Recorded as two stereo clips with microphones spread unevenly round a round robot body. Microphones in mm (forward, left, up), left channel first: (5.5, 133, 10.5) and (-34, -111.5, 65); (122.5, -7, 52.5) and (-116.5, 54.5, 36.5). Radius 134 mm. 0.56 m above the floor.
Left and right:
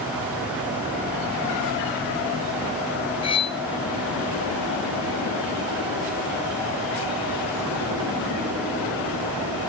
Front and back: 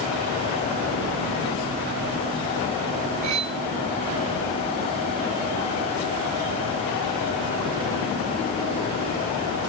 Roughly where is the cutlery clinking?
Behind left.